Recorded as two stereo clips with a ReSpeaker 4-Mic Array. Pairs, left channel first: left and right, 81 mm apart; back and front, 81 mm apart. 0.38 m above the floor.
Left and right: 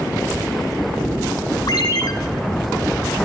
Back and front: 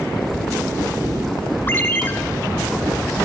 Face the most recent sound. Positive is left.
turn(degrees=120)